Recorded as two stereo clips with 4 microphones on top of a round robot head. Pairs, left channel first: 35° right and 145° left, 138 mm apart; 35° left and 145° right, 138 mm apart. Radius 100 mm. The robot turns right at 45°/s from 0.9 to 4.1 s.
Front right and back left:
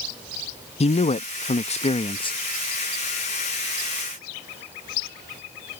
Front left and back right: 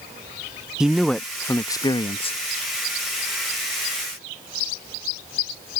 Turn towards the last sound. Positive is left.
turn(degrees=85)